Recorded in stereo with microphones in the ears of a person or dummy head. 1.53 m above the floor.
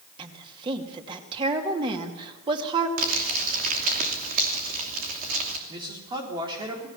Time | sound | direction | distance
0.2 | a woman speaking | 30° right (ahead or behind) | 2.5 m
3.0 | crumpling | 50° right (ahead or behind) | 3 m
5.7 | a man speaking | 25° right (ahead or behind) | 4 m